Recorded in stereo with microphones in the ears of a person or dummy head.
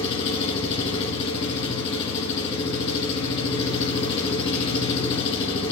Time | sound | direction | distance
0.0 | an engine running | 30° left (ahead or behind) | 1.9 m